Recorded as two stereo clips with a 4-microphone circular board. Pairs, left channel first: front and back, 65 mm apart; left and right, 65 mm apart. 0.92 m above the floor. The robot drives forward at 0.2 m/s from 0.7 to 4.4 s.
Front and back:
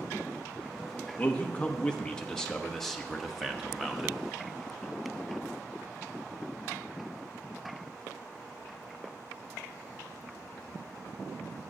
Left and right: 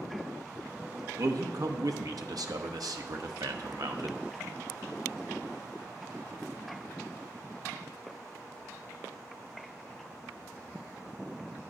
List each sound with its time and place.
1.2 s a man speaking: 65° right, 1.1 m; by 4.2 s 100° right, 1.1 m